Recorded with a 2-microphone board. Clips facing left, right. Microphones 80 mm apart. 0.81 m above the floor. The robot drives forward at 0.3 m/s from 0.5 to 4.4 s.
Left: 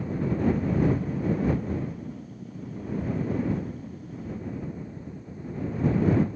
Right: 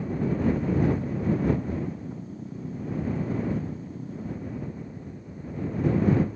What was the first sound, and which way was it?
Only background noise.